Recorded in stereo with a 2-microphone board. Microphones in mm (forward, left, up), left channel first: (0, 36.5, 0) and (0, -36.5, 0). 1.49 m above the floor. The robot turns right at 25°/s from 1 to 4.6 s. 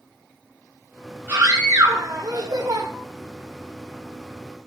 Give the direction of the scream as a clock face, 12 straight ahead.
5 o'clock.